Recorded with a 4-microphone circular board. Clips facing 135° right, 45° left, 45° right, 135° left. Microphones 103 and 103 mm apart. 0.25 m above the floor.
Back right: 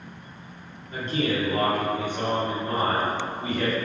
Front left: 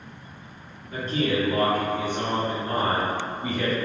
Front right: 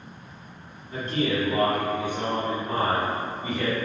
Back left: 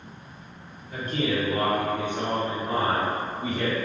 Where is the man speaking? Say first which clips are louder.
Front left 1 dB, front right 1 dB; straight ahead, 1.9 m; by 3.8 s 115° left, 1.4 m.